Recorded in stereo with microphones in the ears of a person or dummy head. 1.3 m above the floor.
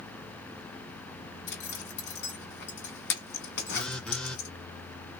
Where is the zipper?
60° left (ahead or behind), 1.8 m.